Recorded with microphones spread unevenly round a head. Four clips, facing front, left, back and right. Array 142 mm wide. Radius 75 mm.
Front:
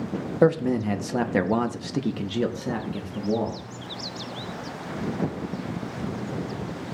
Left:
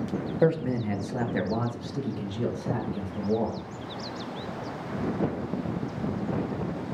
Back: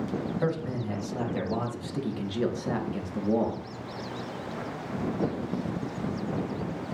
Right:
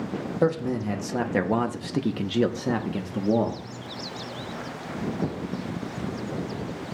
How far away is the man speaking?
About 1.3 m.